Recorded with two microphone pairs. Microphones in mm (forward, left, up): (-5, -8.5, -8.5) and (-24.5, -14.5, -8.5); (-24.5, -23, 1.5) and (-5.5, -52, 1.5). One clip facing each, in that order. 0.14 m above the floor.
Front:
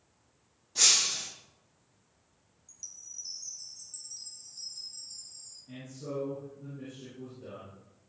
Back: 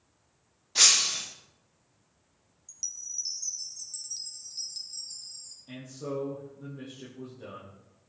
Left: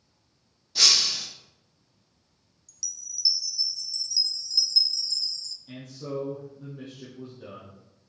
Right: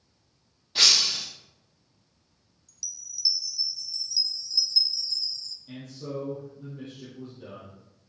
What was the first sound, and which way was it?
Breaking glass, 115° right.